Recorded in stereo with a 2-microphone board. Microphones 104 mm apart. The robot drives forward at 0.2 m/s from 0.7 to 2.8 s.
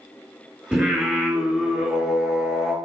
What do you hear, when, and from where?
0.7 s singing: 10° right (ahead or behind), 1.0 m; by 2.8 s 5° right (ahead or behind), 1.4 m